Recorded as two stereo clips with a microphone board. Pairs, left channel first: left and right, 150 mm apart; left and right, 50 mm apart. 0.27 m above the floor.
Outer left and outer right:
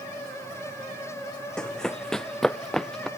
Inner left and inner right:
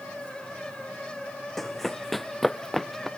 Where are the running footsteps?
5° left (ahead or behind); by 3.1 s centre (ahead or behind).